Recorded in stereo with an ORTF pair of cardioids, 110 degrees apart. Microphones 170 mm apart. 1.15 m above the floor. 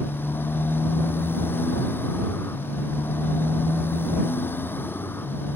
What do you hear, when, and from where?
0.0 s a motorcycle: 10° left